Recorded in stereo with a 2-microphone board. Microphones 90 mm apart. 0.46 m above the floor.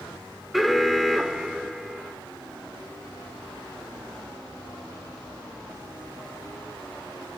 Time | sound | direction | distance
0.5 | an alarm | centre (ahead or behind) | 1.2 m